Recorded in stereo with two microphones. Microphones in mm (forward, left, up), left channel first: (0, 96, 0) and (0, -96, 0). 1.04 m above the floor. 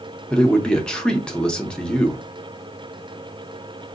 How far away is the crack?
I don't hear a crack.